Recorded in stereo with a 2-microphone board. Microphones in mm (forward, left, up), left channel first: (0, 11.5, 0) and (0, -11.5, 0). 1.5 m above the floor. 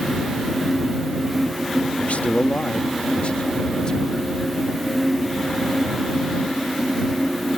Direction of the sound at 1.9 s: 80° left.